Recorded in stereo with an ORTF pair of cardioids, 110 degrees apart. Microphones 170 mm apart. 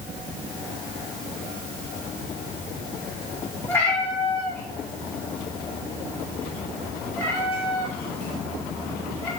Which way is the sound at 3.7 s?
15° left.